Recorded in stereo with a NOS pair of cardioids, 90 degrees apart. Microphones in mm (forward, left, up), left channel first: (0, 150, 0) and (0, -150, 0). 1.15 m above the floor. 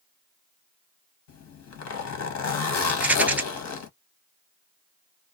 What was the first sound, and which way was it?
A zipper, 65° left.